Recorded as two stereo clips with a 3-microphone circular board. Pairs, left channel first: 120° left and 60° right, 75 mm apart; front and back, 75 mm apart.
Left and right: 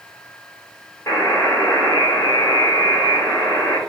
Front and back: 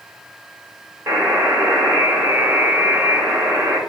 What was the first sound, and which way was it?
A buzzer, 150° left.